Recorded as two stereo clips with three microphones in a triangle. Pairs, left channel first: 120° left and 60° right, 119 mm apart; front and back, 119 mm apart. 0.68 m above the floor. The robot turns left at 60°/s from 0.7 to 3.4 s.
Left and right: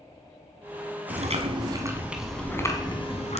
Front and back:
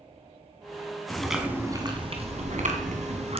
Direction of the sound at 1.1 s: 80° right.